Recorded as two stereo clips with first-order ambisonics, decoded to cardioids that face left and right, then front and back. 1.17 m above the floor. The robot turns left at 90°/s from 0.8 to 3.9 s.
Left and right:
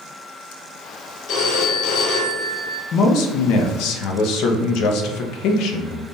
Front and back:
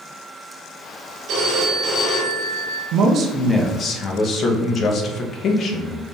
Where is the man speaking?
145° left, 0.6 m; by 6.0 s 55° left, 0.6 m.